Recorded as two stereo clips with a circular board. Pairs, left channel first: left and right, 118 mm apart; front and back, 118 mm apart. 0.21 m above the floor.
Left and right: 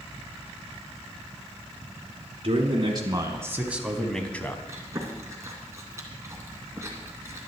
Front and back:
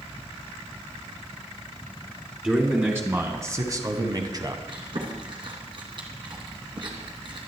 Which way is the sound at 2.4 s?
105° right.